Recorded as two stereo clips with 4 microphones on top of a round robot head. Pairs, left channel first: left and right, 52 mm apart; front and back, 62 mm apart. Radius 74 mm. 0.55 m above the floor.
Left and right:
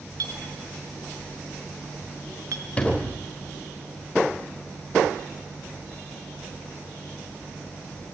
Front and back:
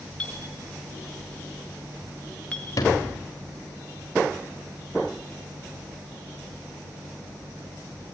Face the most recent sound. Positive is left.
turn(degrees=25)